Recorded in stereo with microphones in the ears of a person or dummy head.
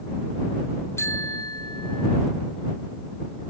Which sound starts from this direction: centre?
A bicycle bell, at 1.0 s.